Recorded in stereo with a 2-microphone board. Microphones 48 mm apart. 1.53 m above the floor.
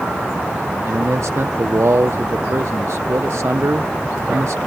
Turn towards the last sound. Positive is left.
turn(degrees=-70)  # may be behind; listen again after turning